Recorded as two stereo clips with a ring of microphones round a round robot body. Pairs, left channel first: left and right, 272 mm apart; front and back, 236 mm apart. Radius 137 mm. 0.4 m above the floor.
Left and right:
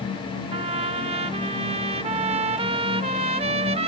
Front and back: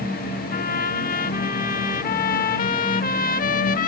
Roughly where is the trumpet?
Ahead right.